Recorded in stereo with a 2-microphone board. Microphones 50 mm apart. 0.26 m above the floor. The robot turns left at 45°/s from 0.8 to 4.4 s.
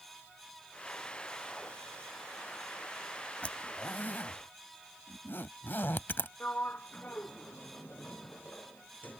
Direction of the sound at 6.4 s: 35° left (ahead or behind).